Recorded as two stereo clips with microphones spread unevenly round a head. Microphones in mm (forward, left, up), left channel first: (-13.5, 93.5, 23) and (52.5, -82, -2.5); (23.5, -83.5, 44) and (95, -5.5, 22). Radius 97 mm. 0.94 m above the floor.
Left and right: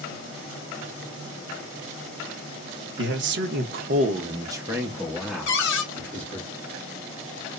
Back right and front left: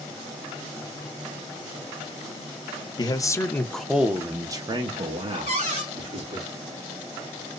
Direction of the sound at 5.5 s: 110° left.